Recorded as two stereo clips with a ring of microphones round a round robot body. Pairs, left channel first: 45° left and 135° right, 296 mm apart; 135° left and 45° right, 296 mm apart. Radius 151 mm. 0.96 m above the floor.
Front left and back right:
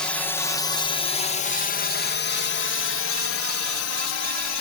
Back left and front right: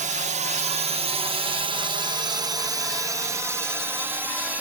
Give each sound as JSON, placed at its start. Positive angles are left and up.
{"t": 0.0, "sound": "a drone", "azimuth_deg": -40}